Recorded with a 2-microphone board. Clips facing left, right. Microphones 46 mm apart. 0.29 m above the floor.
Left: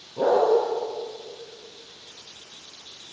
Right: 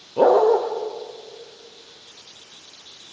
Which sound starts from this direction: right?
A dog barking, at 0.2 s.